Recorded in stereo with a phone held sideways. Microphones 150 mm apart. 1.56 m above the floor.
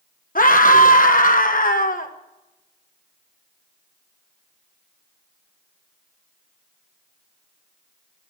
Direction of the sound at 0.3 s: 65° left (ahead or behind).